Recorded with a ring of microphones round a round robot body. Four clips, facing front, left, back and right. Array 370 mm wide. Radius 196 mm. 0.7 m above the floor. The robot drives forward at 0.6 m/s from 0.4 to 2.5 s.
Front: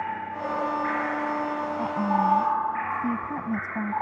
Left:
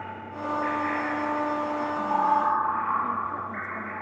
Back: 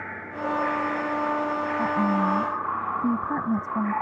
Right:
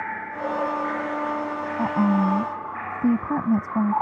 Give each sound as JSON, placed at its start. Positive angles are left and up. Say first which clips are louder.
{"t": 1.8, "sound": "a woman speaking", "louder": "right 6 dB, even", "azimuth_deg": -100}